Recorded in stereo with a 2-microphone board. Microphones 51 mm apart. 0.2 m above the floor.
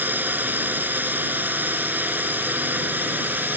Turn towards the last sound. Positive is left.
turn(degrees=-35)  # may be behind; listen again after turning